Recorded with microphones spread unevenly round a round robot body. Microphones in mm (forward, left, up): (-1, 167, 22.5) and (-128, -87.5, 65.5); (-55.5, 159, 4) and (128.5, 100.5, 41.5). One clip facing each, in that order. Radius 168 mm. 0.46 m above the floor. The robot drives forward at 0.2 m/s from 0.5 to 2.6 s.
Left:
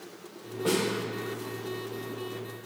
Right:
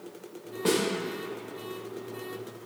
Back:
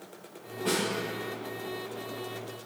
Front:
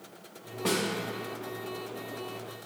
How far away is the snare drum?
About 0.6 m.